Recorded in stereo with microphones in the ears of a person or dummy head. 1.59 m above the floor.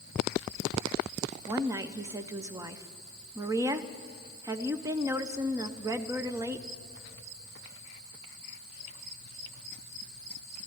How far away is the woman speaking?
About 0.5 m.